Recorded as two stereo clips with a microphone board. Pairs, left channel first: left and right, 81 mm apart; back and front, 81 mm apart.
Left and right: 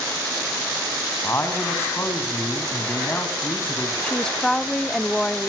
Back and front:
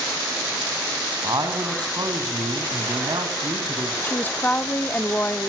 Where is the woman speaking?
160° left, 0.8 m.